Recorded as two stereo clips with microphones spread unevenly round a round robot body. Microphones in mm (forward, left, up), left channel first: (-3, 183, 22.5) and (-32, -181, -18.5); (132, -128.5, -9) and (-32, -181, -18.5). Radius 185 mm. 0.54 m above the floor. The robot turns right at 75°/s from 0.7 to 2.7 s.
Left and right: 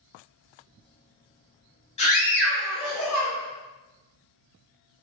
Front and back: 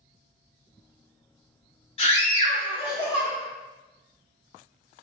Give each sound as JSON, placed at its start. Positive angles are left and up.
{"t": 2.0, "sound": "a scream", "azimuth_deg": 15, "distance_m": 0.7}